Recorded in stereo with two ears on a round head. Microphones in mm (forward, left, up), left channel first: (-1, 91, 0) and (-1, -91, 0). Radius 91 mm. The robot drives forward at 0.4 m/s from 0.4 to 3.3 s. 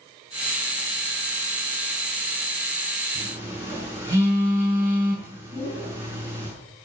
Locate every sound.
3.1 s a phone buzzing: 15° right (ahead or behind), 6 m
5.5 s a whoosh: 20° left (ahead or behind), 7 m